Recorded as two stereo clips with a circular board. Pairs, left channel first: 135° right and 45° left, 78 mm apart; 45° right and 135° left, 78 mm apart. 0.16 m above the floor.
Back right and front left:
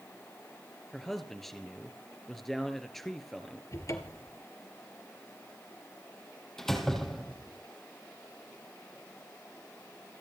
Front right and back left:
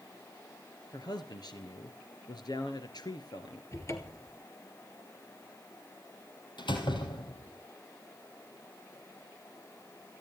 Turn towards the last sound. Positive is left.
turn(degrees=-50)